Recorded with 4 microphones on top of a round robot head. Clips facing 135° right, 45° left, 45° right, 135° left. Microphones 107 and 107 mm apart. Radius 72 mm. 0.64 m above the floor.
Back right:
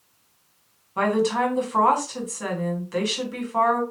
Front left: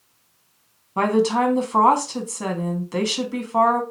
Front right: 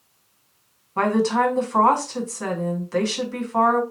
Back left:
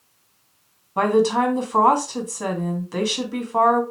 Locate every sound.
1.0 s a woman speaking: 70° left, 1.3 m